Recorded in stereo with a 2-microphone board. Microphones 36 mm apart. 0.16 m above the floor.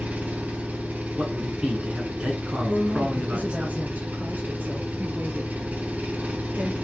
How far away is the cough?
No cough in this recording.